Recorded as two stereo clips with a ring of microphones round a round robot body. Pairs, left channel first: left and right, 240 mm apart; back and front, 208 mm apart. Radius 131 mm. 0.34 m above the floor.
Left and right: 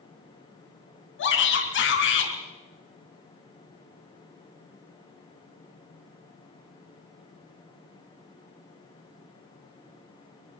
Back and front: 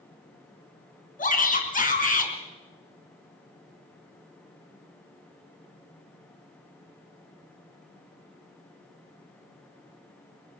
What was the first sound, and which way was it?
A shout, 130° left.